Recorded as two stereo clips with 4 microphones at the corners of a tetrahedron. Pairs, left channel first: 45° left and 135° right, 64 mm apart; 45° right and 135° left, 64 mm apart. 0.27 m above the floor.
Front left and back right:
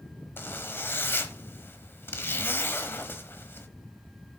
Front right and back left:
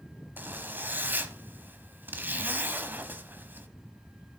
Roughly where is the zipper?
Left.